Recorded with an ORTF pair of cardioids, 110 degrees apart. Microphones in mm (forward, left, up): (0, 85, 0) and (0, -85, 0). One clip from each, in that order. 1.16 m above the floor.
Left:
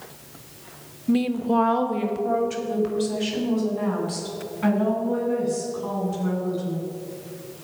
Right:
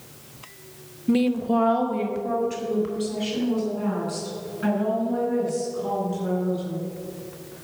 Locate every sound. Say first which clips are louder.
1.1 s a woman speaking: right 1 dB; 20° right, 0.6 m; by 6.9 s 25° left, 8.5 m